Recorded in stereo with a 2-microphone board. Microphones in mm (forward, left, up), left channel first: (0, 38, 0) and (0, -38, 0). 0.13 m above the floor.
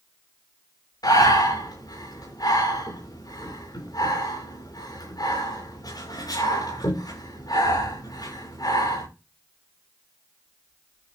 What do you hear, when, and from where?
1.0 s breathing: 65° left (ahead or behind), 8.5 m